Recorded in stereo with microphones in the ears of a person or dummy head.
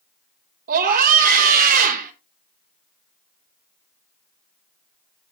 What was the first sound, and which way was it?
A scream, 50° right (ahead or behind).